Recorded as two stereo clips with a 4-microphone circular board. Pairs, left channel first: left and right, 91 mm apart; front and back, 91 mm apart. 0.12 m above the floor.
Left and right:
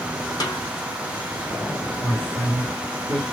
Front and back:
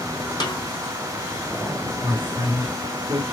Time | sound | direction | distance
0.4 | a snare drum | 40° left | 3 m
2.0 | a man speaking | 155° left | 3 m